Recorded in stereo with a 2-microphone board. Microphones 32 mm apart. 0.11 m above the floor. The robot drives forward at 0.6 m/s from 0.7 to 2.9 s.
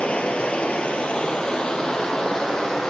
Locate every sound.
0.0 s running water: 40° left (ahead or behind), 1.0 m; by 2.9 s 20° left (ahead or behind), 2 m